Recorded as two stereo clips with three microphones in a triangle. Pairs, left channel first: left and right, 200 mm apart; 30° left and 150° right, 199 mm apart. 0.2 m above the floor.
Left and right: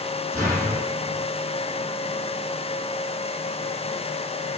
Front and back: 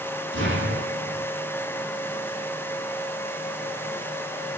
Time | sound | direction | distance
0.3 | an explosion | 165° right | 7.5 m